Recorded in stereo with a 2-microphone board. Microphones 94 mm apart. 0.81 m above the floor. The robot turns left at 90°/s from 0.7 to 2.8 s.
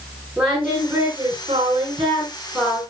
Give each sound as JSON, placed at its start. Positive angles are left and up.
{"t": 0.4, "sound": "singing", "azimuth_deg": -10, "distance_m": 10.0}